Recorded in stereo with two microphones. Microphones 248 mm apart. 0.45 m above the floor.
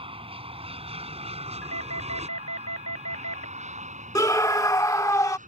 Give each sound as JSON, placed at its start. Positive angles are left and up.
{"t": 0.0, "sound": "an aircraft", "side_deg": -20}
{"t": 1.6, "sound": "a doorbell", "side_deg": 80}
{"t": 4.2, "sound": "a scream", "side_deg": 15}